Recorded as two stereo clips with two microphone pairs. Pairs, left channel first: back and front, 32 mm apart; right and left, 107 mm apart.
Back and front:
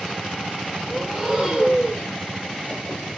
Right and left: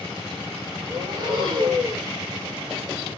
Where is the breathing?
60° left, 2.5 m.